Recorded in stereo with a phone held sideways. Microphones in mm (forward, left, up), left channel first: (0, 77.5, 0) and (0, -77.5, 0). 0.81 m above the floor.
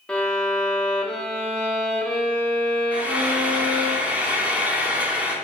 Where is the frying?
10° right (ahead or behind), 1.6 m.